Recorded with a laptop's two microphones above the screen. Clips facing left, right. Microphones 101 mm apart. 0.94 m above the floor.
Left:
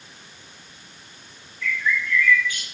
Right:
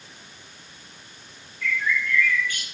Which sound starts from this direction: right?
A bird, at 1.6 s.